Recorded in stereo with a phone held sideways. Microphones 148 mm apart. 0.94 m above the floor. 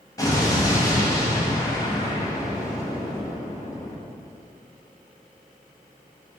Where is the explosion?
25° left (ahead or behind), 0.6 m.